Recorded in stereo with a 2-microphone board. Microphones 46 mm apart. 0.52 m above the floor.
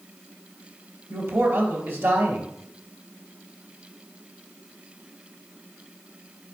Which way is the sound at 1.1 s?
65° right (ahead or behind).